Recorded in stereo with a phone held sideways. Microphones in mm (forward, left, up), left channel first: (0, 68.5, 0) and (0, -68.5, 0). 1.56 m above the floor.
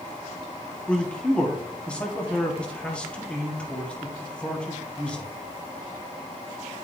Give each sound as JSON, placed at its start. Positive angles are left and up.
{"t": 0.9, "sound": "a man speaking", "side_deg": 10, "distance_m": 1.4}